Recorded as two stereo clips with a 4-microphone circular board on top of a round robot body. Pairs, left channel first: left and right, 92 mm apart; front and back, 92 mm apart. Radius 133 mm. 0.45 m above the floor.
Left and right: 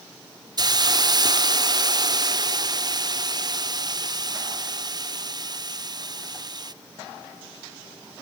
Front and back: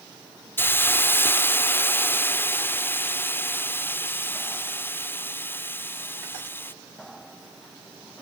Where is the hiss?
60° right.